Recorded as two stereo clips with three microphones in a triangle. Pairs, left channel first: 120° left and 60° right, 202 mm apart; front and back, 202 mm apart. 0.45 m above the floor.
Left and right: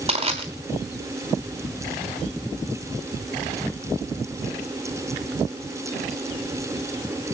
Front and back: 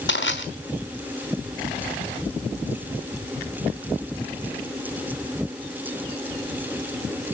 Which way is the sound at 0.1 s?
Straight ahead.